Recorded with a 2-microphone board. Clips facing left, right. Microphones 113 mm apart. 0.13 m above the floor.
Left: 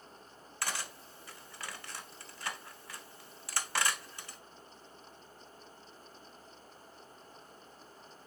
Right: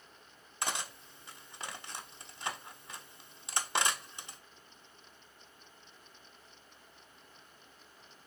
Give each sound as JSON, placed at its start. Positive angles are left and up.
{"t": 0.6, "sound": "cutlery clinking", "side_deg": -20, "distance_m": 0.7}